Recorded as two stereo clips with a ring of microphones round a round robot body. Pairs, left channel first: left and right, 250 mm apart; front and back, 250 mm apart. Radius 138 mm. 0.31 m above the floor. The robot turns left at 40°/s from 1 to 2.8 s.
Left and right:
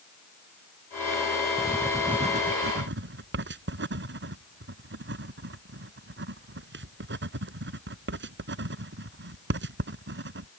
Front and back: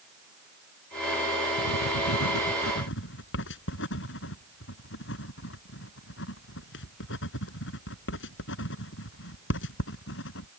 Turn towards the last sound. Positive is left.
turn(degrees=-50)